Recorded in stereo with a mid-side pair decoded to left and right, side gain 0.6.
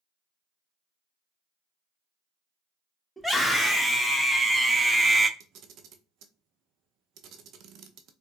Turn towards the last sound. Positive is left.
turn(degrees=-60)